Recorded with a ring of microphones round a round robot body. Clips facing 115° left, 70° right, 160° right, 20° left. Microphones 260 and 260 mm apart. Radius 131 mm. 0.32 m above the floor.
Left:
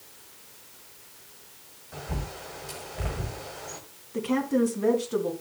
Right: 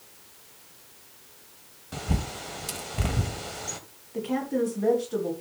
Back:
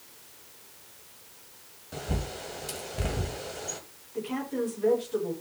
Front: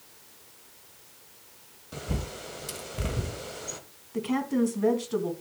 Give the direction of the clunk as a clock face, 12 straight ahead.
I don't hear a clunk.